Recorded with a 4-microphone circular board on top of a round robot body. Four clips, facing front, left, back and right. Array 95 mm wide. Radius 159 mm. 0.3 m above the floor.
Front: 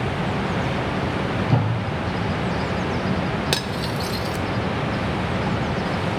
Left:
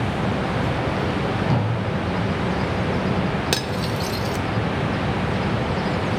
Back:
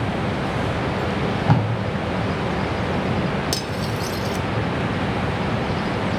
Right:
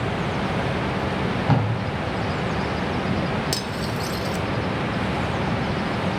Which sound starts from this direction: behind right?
Tape being pulled, at 1.1 s.